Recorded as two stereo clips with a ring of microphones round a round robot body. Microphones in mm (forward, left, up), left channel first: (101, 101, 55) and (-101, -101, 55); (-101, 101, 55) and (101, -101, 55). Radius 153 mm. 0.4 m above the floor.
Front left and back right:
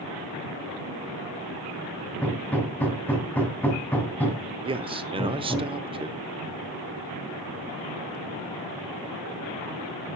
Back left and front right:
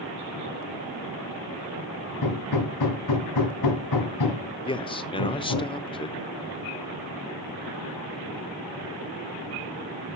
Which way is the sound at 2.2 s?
130° left.